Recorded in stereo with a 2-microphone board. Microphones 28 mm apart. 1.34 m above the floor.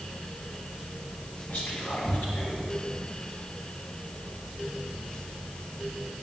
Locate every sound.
1.5 s whispering: 80° left, 1.8 m